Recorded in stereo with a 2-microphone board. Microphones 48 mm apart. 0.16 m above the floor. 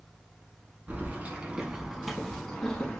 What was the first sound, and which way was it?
Keys jangling, 30° right (ahead or behind).